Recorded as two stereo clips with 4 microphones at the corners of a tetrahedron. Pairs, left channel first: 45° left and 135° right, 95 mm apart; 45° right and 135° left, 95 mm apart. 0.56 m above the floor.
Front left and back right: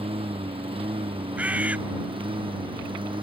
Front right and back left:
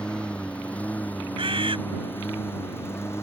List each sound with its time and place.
0.0 s a lawn mower: 125° right; by 3.2 s 110° right
1.4 s a bird: 150° left